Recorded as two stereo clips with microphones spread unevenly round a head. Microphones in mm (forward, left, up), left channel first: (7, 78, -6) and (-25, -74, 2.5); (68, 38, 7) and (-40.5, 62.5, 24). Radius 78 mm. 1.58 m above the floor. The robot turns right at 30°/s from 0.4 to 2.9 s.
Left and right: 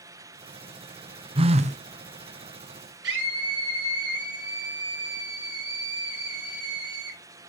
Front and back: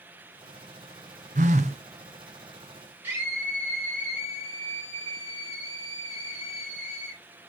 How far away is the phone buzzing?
About 0.6 m.